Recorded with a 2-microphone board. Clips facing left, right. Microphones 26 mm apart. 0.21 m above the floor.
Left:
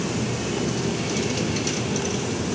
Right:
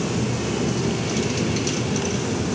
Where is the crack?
I don't hear a crack.